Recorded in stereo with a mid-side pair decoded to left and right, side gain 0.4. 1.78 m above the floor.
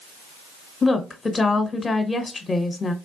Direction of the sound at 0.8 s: 35° left.